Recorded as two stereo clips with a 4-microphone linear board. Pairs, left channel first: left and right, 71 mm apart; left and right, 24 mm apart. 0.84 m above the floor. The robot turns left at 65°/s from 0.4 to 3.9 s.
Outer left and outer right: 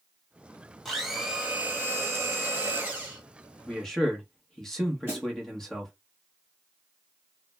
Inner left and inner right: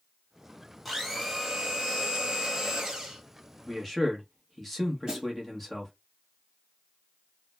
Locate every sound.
0.8 s a blender: centre (ahead or behind), 0.9 m; by 3.2 s 15° right (ahead or behind), 0.9 m
3.7 s a man speaking: 10° left (ahead or behind), 0.9 m; by 5.9 s 5° left (ahead or behind), 0.9 m
5.1 s a snare drum: 30° right (ahead or behind), 1.2 m